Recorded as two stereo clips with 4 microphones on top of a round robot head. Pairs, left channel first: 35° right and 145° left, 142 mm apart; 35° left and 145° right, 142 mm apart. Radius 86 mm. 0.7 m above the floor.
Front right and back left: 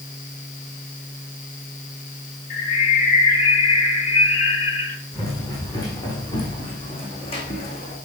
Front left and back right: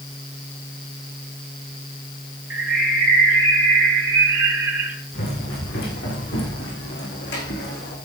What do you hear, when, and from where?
2.5 s a bird: 65° right, 3.5 m
5.1 s running footsteps: 40° left, 4.5 m; by 8.0 s 10° left, 2.5 m